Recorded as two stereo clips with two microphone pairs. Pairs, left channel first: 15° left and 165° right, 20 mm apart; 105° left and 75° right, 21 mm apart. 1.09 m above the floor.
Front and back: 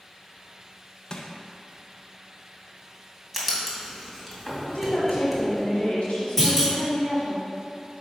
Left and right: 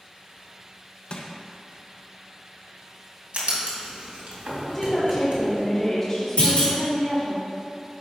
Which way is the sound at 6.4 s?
85° left.